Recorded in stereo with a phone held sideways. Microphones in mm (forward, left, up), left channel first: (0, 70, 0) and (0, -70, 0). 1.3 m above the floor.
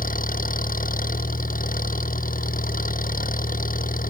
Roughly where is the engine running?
Left.